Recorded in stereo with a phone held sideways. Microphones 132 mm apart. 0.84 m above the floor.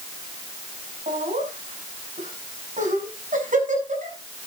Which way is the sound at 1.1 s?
75° right (ahead or behind).